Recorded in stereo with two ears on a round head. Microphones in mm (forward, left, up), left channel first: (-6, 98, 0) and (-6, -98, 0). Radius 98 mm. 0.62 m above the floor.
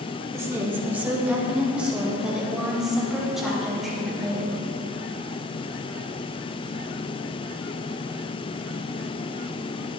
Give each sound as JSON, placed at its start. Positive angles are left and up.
{"t": 0.3, "sound": "a woman speaking", "side_deg": -15, "distance_m": 1.4}